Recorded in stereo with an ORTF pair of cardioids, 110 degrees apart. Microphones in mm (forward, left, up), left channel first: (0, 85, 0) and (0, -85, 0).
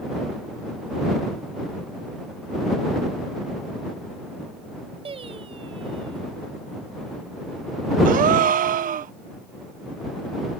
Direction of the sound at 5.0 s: 30° right.